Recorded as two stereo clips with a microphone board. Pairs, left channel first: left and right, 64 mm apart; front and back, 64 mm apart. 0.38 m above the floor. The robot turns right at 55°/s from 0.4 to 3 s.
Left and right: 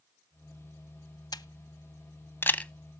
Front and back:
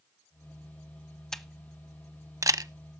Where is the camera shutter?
80° left, 0.6 m; by 2.7 s 160° left, 0.6 m.